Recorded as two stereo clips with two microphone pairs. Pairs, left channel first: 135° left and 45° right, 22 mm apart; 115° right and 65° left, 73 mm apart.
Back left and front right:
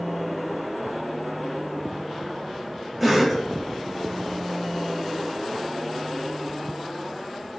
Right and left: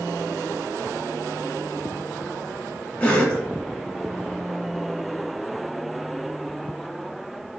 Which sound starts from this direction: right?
A cough, at 3.0 s.